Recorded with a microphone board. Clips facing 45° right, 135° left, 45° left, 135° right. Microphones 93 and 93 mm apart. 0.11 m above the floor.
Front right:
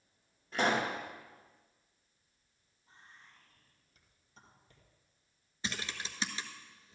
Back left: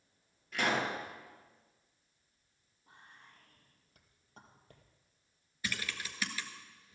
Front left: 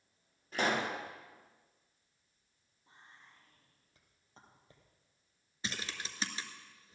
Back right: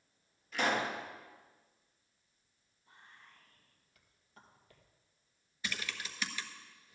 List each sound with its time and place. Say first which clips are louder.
0.5 s a pop: front right 2 dB, even; 5° left, 2.5 m
2.9 s whispering: back left 1 dB, even; 110° left, 2 m
5.6 s typing on a keyboard: even, even; straight ahead, 1.1 m